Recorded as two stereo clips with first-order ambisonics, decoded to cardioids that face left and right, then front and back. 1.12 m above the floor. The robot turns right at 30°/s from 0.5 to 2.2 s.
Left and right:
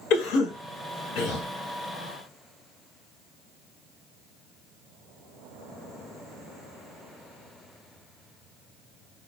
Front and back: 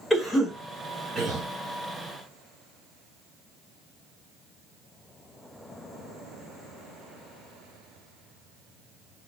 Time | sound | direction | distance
0.1 | a cough | 85° left | 1.3 m